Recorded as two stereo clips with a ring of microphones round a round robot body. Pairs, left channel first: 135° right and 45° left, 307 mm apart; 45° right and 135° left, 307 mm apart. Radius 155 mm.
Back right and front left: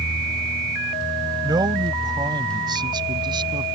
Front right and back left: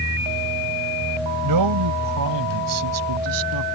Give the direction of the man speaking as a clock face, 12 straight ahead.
8 o'clock.